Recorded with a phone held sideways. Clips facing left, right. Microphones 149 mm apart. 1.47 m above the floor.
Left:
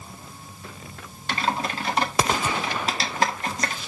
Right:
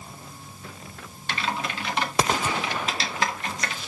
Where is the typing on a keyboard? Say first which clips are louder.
Left 3 dB; 40° left (ahead or behind), 1.5 m.